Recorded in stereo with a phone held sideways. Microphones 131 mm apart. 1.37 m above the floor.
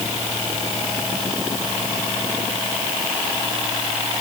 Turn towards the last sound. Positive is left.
No sound to turn to.